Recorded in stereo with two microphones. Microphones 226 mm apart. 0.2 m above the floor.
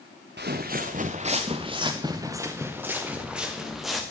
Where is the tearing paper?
I don't hear tearing paper.